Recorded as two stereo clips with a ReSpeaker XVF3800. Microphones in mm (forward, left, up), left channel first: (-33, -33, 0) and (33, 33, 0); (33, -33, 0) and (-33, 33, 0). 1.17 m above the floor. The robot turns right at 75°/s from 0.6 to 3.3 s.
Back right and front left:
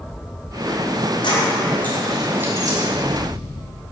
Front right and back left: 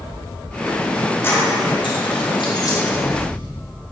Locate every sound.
1.2 s keys jangling: 110° right, 3 m; by 2.8 s 5° left, 3 m